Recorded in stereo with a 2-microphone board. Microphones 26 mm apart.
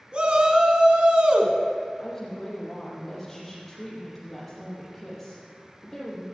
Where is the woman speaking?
15° left (ahead or behind), 6.5 m.